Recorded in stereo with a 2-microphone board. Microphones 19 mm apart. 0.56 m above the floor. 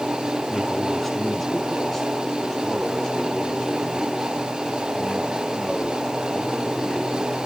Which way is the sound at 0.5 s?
10° left (ahead or behind).